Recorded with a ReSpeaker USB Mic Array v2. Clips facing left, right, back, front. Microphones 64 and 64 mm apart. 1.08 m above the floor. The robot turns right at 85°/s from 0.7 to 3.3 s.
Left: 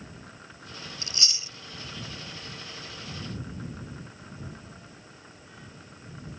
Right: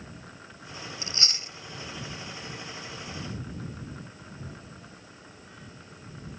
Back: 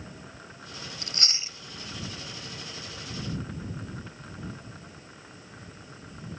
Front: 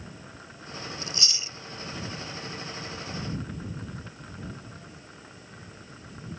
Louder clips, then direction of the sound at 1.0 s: Even, front 1 dB; 155° right.